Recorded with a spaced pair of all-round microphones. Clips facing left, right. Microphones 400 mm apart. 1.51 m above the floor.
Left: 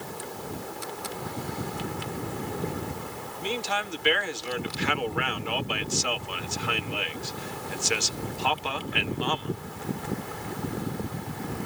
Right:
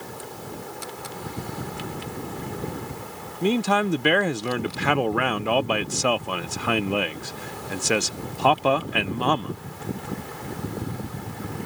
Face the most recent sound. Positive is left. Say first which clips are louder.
# right 11 dB
turn(degrees=-70)  # may be behind; listen again after turning